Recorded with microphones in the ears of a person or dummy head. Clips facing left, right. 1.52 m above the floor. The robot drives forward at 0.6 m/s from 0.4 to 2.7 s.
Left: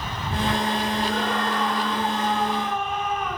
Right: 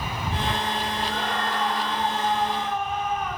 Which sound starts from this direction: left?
A scream, at 1.1 s.